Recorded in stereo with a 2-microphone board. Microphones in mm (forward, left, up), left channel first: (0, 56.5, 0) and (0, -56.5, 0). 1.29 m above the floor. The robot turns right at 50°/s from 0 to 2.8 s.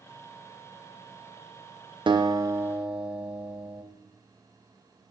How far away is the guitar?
About 0.5 m.